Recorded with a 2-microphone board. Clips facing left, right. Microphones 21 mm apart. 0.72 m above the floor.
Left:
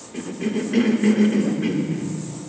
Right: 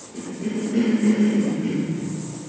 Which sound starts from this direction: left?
A cough, at 0.1 s.